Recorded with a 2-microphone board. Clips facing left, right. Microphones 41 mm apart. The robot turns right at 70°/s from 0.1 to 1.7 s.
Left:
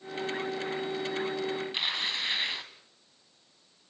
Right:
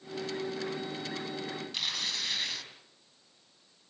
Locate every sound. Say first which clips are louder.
1.7 s tearing paper: left 3 dB; 30° left (ahead or behind), 2 m